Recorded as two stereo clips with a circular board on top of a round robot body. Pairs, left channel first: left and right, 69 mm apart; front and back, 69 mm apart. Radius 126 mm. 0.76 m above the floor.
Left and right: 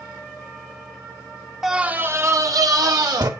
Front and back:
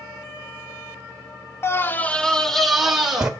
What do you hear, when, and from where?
1.6 s a scream: 10° right, 0.8 m; by 3.3 s 100° right, 1.4 m